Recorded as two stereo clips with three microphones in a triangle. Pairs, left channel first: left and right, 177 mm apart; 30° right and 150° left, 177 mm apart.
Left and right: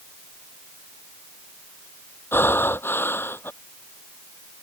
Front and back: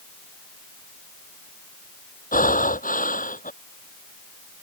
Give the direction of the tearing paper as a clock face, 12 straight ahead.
I don't hear tearing paper.